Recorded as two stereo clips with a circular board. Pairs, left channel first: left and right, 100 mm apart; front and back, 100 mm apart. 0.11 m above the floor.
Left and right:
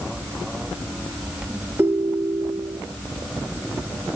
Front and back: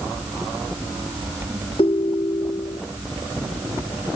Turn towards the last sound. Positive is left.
turn(degrees=-25)